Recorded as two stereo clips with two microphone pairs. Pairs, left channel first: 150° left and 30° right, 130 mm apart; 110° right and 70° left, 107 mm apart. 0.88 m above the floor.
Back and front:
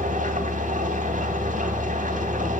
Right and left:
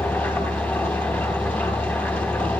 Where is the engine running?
40° right, 3 m.